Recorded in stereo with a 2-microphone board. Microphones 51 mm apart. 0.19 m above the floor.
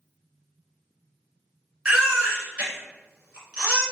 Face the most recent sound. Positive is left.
turn(degrees=-20)  # may be behind; listen again after turning